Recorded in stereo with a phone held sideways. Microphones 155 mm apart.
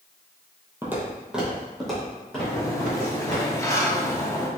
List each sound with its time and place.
0.8 s footsteps: 15° right (ahead or behind), 1.5 m; by 3.4 s 10° left (ahead or behind), 3.5 m
2.4 s a sliding door: 20° left (ahead or behind), 0.8 m